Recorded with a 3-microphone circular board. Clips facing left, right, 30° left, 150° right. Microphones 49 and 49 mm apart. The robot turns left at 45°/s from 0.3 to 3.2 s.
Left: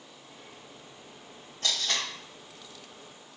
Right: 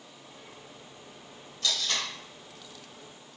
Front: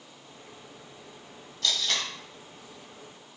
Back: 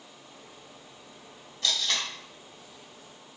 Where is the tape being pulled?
140° left, 1.6 m; by 2.1 s 120° left, 1.6 m.